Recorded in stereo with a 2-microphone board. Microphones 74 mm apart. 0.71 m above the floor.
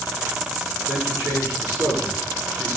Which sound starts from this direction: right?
A man speaking, at 0.9 s.